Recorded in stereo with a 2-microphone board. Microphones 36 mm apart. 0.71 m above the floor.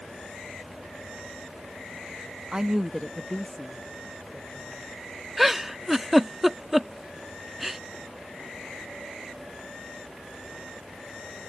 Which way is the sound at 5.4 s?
10° right (ahead or behind).